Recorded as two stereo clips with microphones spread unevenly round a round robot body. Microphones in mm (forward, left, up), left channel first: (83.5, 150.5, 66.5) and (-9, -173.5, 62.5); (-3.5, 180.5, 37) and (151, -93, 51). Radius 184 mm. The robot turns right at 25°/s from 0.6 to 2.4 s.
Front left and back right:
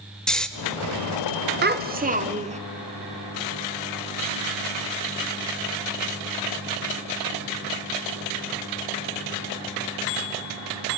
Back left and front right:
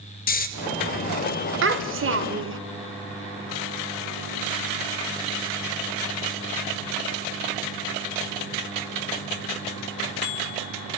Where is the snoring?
160° left, 0.7 m.